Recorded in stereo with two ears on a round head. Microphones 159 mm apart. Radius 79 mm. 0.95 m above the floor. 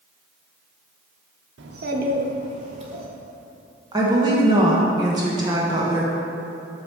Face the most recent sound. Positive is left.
turn(degrees=-25)  # may be behind; listen again after turning